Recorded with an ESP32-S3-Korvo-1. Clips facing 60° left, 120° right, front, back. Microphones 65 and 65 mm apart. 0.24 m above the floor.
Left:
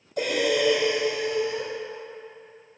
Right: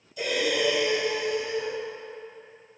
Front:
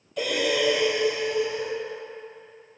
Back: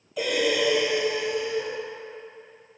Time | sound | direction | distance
0.2 | breathing | 95° left | 2.5 m